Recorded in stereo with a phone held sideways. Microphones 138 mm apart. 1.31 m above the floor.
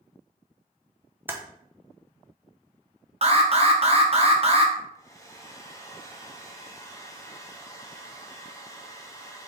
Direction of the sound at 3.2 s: 45° right (ahead or behind).